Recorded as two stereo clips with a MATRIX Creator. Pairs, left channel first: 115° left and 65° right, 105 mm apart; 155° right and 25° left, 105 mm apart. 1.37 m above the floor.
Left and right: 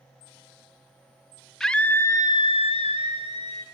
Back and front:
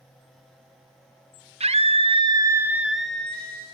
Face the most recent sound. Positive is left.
turn(degrees=130)